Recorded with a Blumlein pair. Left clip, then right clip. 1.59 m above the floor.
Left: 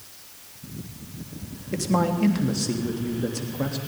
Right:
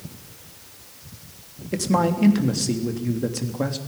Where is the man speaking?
10° right, 3 m.